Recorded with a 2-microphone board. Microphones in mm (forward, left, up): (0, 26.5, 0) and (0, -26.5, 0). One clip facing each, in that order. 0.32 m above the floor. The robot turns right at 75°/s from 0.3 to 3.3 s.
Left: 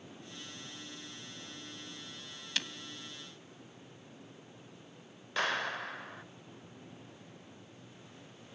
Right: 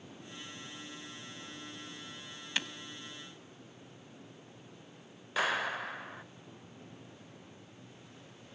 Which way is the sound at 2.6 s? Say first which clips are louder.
Right 2 dB; 20° right (ahead or behind).